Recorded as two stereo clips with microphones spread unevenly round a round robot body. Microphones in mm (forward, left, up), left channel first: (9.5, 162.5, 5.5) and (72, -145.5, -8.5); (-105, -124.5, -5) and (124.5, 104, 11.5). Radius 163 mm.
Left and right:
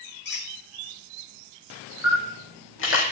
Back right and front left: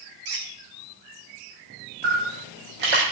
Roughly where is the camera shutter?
Ahead left.